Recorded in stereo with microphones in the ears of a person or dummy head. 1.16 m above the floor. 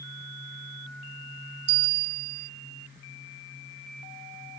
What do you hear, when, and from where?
1.7 s a bell: 75° right (ahead or behind)